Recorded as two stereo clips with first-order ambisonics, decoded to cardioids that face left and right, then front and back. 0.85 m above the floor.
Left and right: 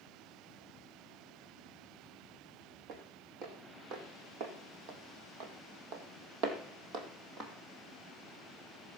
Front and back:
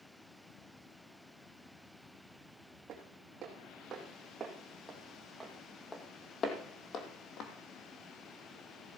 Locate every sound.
2.9 s footsteps: 125° right, 3.5 m; by 7.5 s 35° right, 2 m